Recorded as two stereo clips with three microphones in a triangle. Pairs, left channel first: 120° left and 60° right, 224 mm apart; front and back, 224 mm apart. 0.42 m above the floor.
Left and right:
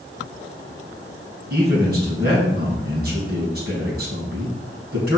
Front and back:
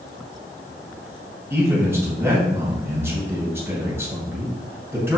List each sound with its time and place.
1.5 s a man speaking: 100° right, 3.5 m